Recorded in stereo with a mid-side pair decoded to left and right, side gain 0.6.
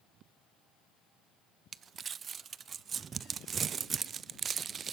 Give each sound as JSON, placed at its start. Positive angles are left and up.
{"t": 1.7, "sound": "crumpling", "azimuth_deg": -35, "distance_m": 0.6}